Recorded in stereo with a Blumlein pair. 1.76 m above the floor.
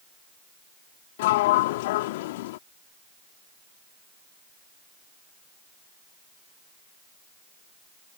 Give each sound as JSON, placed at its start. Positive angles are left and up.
{"t": 1.2, "sound": "a sliding door", "azimuth_deg": 50}